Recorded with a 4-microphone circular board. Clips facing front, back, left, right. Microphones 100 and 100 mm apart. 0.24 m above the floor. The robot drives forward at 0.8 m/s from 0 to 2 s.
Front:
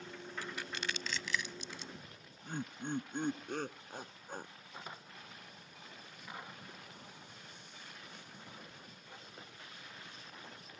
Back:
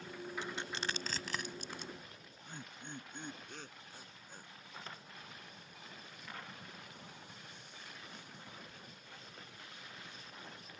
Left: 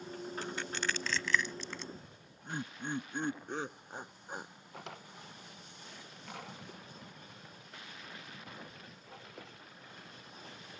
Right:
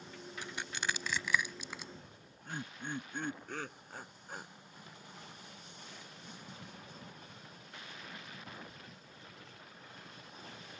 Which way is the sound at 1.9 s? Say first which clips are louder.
Even, left 1 dB; 25° left.